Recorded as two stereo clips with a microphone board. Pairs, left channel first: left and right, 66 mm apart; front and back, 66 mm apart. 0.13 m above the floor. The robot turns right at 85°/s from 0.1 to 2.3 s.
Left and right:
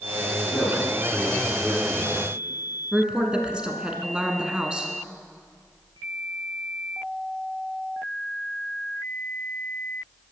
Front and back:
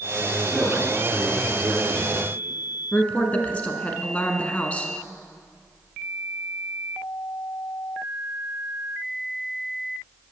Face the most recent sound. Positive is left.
turn(degrees=-35)